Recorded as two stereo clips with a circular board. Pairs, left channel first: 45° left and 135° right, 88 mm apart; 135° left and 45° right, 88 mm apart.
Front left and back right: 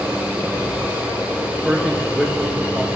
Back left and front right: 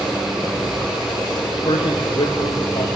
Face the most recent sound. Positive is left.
turn(degrees=130)